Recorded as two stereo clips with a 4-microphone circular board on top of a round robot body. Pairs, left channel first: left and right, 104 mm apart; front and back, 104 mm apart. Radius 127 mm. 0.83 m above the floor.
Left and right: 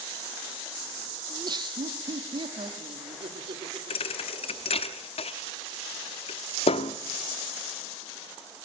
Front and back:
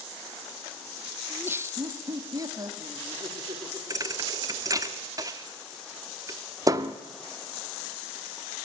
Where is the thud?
120° left, 0.7 m.